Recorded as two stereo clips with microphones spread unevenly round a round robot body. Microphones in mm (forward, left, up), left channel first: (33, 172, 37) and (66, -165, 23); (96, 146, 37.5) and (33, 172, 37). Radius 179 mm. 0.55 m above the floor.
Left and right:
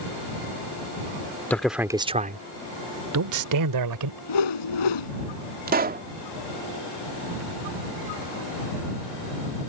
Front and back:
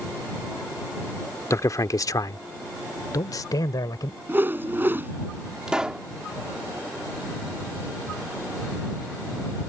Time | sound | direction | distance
1.5 | a man speaking | 10° left | ?
4.3 | a whoosh | 100° left | ?
5.7 | a pop | 130° right | ?